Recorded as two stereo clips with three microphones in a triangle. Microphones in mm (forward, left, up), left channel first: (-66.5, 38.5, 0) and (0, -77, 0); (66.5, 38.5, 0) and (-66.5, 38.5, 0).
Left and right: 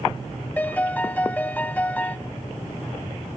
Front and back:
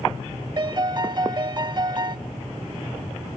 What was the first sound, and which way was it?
A piano, 170° right.